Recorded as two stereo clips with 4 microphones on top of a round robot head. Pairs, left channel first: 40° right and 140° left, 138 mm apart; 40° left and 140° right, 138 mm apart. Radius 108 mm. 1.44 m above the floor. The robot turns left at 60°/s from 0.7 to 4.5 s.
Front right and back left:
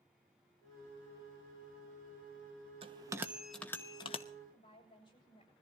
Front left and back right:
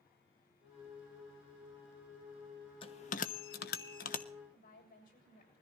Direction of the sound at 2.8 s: 90° left.